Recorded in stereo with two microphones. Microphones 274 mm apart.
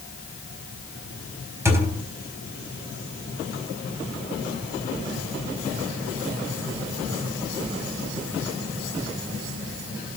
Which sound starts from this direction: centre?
A thud, at 1.6 s.